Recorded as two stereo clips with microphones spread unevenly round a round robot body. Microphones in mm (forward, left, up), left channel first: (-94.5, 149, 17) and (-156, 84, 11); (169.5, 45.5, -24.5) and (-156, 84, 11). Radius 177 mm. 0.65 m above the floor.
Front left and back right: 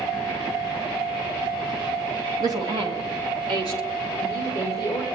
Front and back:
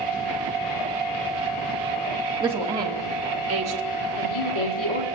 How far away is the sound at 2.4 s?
About 1.2 m.